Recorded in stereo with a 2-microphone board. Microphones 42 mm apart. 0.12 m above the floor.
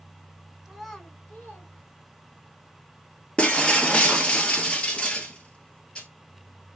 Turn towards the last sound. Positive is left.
turn(degrees=25)  # may be behind; listen again after turning